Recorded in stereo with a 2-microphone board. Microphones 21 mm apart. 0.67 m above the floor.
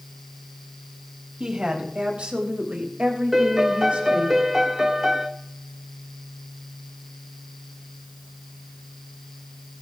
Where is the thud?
No thud in this recording.